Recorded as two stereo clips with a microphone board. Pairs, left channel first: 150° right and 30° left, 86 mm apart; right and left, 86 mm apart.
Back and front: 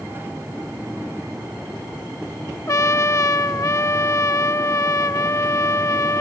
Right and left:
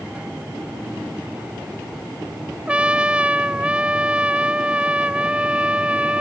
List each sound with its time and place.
2.7 s a trumpet: 165° left